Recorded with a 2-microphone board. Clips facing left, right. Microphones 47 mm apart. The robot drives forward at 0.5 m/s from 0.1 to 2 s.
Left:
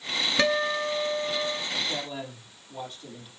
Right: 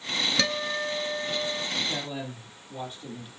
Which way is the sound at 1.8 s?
10° right (ahead or behind).